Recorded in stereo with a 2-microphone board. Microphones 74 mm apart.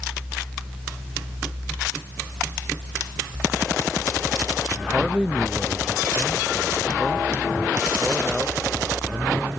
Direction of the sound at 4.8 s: 5° right (ahead or behind).